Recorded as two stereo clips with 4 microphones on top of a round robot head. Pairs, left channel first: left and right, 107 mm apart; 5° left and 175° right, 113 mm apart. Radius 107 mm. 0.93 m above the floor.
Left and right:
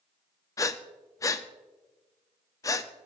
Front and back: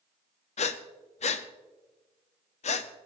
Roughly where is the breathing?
Ahead left.